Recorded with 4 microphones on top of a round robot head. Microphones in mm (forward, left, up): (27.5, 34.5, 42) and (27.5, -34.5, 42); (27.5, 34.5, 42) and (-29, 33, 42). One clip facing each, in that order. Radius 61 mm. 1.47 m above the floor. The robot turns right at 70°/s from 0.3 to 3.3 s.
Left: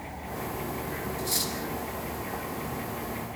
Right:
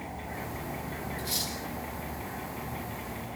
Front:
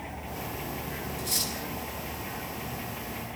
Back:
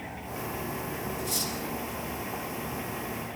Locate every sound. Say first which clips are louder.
1.2 s cutlery clinking: left 4 dB, back 2 dB; 20° left, 7 m; by 1.5 s 45° left, 7 m